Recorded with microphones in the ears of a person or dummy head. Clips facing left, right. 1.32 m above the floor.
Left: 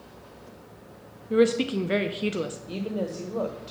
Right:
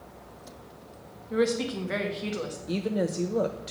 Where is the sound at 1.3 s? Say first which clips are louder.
Left 5 dB; 40° left (ahead or behind), 0.7 m.